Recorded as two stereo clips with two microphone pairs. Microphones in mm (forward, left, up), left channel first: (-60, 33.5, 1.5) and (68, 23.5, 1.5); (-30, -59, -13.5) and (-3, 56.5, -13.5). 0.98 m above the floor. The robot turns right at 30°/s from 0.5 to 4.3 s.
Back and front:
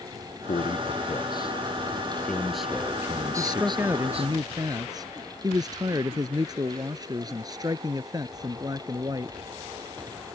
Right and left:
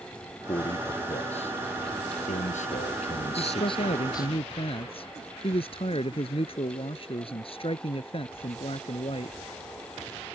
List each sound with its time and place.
0.5 s a man speaking: 155° right; by 4.4 s 40° right
3.4 s a man speaking: 90° right; by 9.4 s 65° right